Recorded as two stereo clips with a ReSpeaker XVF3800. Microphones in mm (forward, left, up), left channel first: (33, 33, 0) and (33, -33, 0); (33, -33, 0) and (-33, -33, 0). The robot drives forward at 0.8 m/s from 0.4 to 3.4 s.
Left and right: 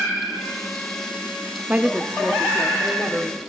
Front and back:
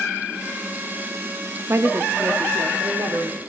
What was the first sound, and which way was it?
A woman speaking, 145° right.